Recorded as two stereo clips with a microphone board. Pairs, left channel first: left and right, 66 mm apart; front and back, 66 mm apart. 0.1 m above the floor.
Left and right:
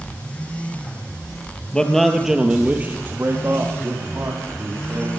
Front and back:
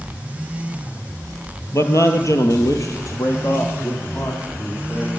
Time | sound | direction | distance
1.7 | a man speaking | 20° left | 2 m